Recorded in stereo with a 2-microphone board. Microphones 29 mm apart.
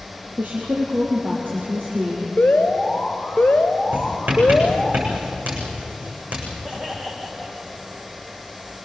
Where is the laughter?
20° right (ahead or behind), 8.5 m.